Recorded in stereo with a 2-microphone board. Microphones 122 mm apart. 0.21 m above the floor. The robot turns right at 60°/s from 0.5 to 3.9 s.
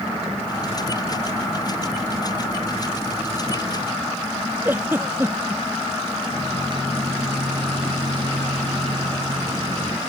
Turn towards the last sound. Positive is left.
turn(degrees=-45)  # may be behind; listen again after turning